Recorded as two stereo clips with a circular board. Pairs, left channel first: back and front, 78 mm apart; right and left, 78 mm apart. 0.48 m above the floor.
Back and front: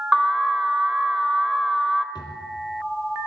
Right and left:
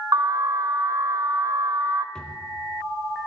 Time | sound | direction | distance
0.1 | an alarm | 85° left | 1.7 m
2.1 | a drawer | 170° right | 3.5 m